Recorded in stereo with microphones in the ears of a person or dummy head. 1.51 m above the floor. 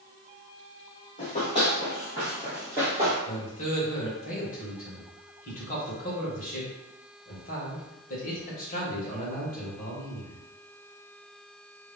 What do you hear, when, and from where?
1.2 s running footsteps: 30° left (ahead or behind), 1.8 m; by 3.1 s 20° right (ahead or behind), 1.5 m
3.2 s a man speaking: 45° left (ahead or behind), 1.6 m